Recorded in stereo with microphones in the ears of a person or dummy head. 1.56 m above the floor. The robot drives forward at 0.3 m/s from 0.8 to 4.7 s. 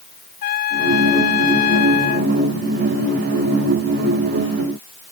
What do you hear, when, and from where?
0.4 s a trumpet: 50° left (ahead or behind); by 2.3 s 45° left (ahead or behind)